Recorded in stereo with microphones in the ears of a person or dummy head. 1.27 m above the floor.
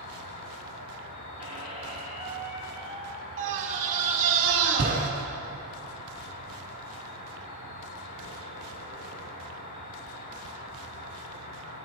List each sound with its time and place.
0.0 s an insect: 45° left (ahead or behind), 1.4 m
1.4 s a squeak: 75° left (ahead or behind), 2 m
3.4 s a scream: 40° right (ahead or behind), 1.9 m